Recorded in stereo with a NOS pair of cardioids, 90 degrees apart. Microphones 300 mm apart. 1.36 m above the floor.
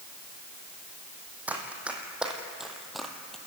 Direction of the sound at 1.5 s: 5° right.